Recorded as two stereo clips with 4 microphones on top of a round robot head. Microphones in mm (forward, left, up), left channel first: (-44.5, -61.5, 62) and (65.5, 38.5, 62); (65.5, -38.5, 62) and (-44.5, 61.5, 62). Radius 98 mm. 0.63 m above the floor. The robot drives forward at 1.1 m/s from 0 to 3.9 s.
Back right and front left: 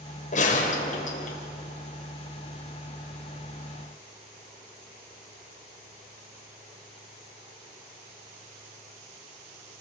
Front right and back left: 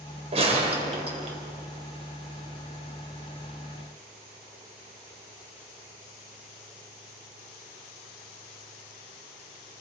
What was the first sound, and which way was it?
A gunshot, 175° right.